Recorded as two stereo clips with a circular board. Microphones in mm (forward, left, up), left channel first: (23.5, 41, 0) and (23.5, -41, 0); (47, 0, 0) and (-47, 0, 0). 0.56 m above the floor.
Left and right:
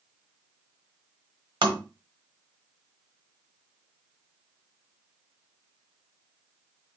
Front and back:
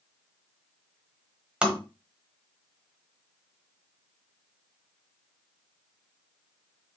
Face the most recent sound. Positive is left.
turn(degrees=-100)